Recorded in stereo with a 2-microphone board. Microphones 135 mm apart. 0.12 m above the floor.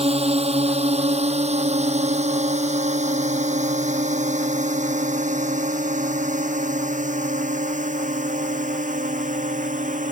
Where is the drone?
50° right (ahead or behind); by 10.1 s 70° right (ahead or behind).